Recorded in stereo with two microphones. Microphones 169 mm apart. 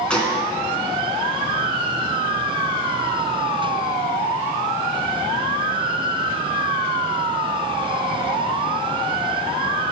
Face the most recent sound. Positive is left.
turn(degrees=5)  # may be behind; listen again after turning